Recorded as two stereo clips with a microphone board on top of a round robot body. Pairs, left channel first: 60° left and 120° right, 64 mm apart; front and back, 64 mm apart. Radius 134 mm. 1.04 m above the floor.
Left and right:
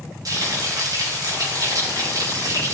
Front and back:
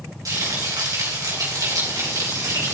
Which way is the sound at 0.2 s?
150° right.